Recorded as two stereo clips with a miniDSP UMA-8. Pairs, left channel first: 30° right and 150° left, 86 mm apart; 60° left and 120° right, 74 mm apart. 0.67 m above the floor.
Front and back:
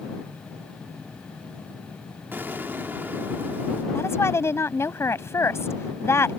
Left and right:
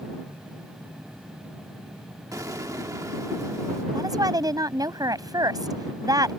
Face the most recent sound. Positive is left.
turn(degrees=-90)